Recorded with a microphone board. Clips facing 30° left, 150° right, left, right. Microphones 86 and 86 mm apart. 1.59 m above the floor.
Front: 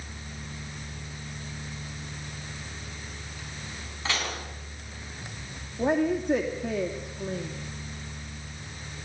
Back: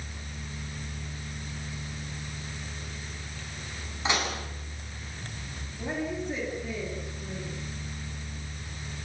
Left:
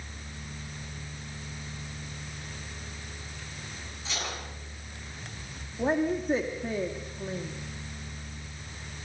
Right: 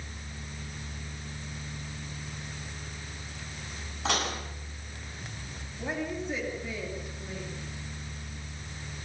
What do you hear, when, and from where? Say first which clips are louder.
4.0 s dishes clattering: back 3 dB, right 7 dB; 80° right, 8 m
5.8 s a woman speaking: front 8 dB, left 7 dB; 45° left, 2.5 m